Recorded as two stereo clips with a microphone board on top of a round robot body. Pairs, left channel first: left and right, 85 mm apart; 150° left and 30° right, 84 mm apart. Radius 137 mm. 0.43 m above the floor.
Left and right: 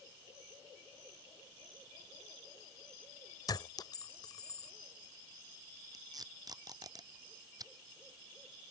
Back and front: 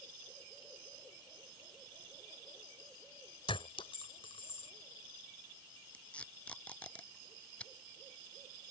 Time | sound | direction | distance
3.5 | a clink | 135° left | ?
5.9 | tape being pulled | 135° right | ?